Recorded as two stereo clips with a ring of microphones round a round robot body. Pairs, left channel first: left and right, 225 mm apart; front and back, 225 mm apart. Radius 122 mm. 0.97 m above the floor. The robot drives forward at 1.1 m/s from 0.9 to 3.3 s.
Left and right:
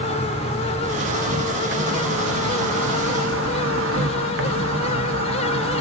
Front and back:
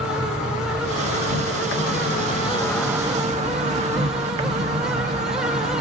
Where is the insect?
25° right, 2.5 m; by 5.8 s 120° right, 1.1 m.